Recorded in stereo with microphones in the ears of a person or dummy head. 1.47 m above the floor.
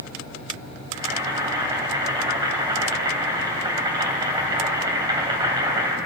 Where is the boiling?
20° right (ahead or behind), 2.5 m.